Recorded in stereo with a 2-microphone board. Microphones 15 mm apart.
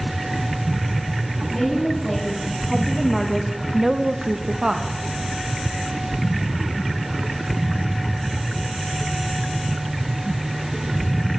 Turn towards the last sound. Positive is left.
turn(degrees=-45)  # may be behind; listen again after turning